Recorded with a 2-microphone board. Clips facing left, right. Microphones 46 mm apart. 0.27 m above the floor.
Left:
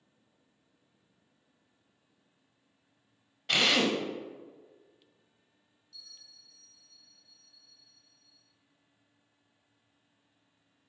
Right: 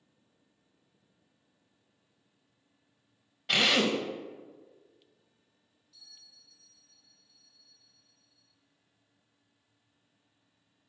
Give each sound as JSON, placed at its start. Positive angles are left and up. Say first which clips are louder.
{"t": 3.5, "sound": "a drill", "louder": "even", "side_deg": -5, "distance_m": 0.8}
{"t": 5.9, "sound": "a bell", "louder": "left 3 dB", "side_deg": 75, "distance_m": 2.5}